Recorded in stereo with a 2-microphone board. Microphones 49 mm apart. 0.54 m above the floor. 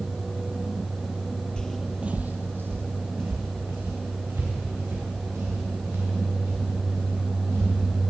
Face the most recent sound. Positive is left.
turn(degrees=-70)  # may be behind; listen again after turning